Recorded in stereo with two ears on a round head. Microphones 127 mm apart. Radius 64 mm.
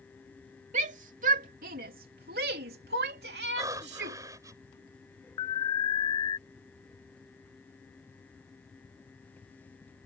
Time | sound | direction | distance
0.7 | a shout | 55° right (ahead or behind) | ?
3.6 | breathing | 25° right (ahead or behind) | ?
5.4 | an alarm | 30° left (ahead or behind) | ?